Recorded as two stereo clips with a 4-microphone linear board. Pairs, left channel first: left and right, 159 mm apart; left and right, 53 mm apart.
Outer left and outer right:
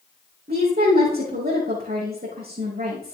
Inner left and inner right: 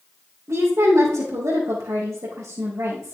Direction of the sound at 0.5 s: 70° right (ahead or behind).